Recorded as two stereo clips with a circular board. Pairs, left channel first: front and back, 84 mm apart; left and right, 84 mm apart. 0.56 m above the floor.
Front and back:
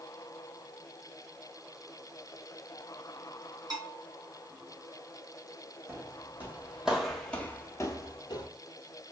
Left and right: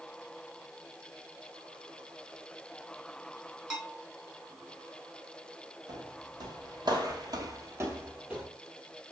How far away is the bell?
About 2.0 m.